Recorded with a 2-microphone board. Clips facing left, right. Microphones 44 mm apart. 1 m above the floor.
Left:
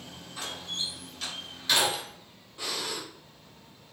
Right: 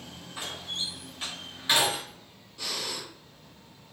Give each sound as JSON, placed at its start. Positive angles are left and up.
{"t": 0.4, "sound": "a door slam", "side_deg": -20, "distance_m": 3.0}
{"t": 2.6, "sound": "breathing", "side_deg": 20, "distance_m": 3.0}